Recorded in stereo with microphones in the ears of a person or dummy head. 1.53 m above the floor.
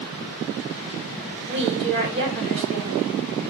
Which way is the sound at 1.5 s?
55° right (ahead or behind).